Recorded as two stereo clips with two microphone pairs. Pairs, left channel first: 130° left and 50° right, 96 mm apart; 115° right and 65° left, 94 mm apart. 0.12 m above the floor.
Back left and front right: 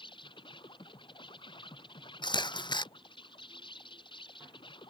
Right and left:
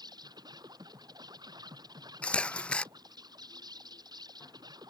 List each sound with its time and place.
0.0 s an insect: 105° left
2.2 s a camera shutter: 165° left